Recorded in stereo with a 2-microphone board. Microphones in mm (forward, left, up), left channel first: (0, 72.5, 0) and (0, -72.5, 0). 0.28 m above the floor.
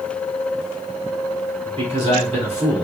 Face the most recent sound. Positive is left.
turn(degrees=-45)  # may be behind; listen again after turning